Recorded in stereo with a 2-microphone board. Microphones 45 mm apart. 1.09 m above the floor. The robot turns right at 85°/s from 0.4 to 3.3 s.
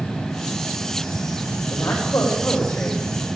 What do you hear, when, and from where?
1.7 s a woman speaking: 55° left, 3.5 m; by 3.0 s 170° left, 3.5 m